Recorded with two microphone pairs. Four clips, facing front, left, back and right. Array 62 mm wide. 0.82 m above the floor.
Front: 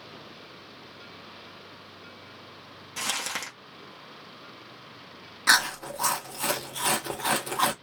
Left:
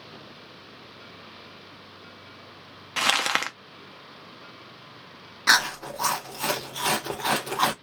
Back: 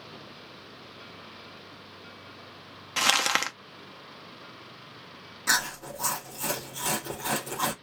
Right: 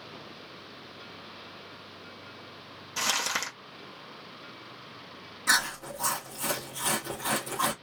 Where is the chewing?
55° left, 0.7 m.